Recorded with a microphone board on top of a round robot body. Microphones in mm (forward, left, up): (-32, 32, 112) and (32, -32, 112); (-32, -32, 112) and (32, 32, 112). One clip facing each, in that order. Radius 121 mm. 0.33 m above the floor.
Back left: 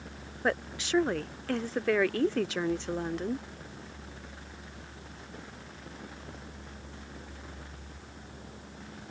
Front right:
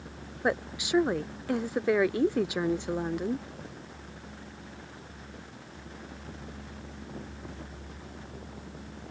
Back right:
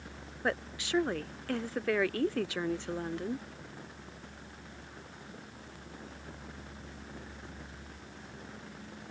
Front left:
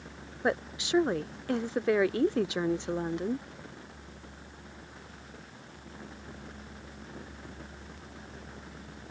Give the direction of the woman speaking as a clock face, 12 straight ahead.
12 o'clock.